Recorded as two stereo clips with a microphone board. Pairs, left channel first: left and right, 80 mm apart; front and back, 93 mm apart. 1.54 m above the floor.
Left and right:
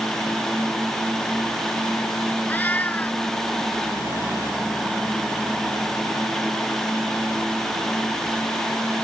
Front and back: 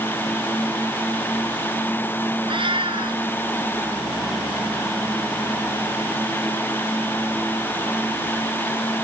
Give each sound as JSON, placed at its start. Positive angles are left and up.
{"t": 2.5, "sound": "a cat meowing", "azimuth_deg": 160}